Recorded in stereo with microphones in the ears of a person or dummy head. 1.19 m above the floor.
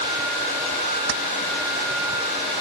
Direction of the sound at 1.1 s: 60° right (ahead or behind).